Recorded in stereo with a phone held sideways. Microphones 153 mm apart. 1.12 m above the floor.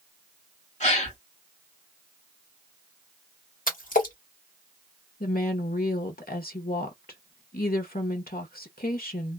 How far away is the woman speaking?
About 0.8 m.